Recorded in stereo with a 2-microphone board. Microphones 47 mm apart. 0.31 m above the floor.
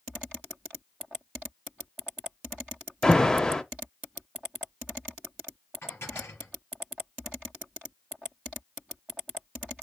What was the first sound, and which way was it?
An alarm, 10° left (ahead or behind).